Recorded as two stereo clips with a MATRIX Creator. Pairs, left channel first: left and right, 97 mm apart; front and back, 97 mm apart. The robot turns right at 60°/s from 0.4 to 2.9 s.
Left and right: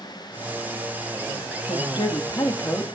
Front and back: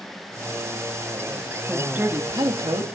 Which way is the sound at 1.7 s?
95° left.